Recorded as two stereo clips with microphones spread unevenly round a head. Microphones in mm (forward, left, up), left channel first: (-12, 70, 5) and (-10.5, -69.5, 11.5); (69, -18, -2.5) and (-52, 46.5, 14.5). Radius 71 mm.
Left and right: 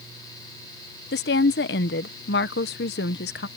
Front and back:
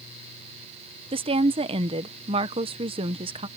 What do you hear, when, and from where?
1.1 s a woman speaking: 100° left